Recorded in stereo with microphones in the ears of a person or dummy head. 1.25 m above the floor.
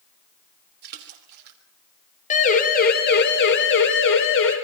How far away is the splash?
About 3 m.